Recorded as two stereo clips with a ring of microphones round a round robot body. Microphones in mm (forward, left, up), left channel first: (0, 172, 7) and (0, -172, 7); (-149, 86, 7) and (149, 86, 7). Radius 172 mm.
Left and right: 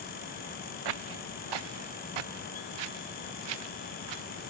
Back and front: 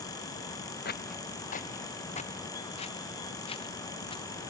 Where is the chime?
No chime in this recording.